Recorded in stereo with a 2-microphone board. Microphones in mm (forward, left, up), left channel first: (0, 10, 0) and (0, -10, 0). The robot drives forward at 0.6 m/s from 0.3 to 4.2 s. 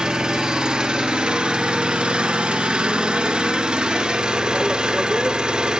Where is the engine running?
35° right (ahead or behind), 2.0 m; by 5.8 s 45° right (ahead or behind), 1.6 m.